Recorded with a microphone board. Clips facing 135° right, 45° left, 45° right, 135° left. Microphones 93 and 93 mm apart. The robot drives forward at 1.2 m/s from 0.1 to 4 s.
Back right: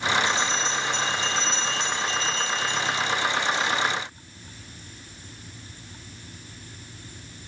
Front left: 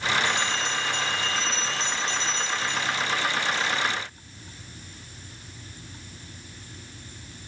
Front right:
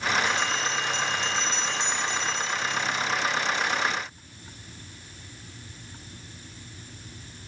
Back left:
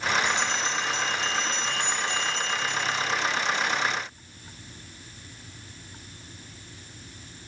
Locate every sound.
0.2 s a bell: 65° left, 3.5 m; by 3.8 s 135° left, 4.5 m